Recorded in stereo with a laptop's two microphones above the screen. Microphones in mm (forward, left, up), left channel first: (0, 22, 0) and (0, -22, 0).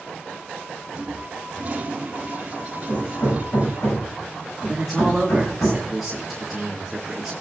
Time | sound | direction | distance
0.9 | a toilet flushing | 35° right (ahead or behind) | 2 m
2.9 | hammering | 85° left | 6 m
4.7 | a man speaking | centre (ahead or behind) | 2 m